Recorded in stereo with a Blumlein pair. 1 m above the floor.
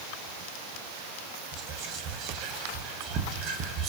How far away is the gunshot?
I don't hear a gunshot.